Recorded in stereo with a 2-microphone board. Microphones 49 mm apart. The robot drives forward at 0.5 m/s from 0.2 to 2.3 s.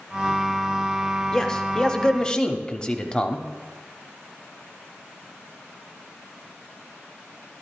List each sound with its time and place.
1.3 s a man speaking: 15° left (ahead or behind), 0.9 m; by 3.5 s 20° left (ahead or behind), 0.7 m